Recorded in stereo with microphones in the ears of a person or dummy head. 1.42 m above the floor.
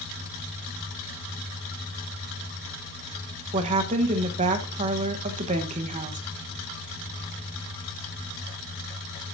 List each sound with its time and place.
3.5 s a woman speaking: 40° right (ahead or behind), 1.3 m